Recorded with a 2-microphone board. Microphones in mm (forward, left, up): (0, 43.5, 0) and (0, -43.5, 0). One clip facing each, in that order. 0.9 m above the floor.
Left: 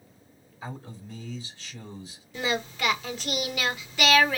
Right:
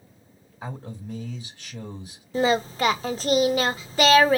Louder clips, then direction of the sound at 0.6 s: Right 4 dB; 50° right (ahead or behind).